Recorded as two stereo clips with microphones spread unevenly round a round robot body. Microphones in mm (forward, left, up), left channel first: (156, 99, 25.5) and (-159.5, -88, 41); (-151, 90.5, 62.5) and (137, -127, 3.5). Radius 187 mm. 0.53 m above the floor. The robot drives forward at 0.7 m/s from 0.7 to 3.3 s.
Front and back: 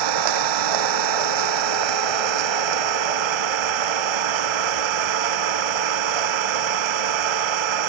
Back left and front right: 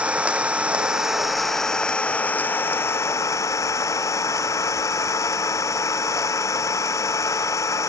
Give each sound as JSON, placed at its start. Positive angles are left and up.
{"t": 0.0, "sound": "an engine running", "azimuth_deg": -125}